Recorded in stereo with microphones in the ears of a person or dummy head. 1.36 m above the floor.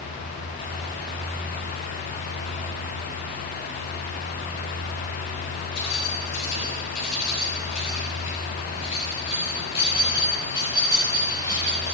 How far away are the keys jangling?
About 7.5 m.